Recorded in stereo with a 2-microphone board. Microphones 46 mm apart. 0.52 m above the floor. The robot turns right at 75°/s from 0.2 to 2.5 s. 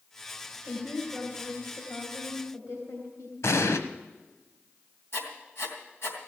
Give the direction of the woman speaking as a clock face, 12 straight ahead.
2 o'clock.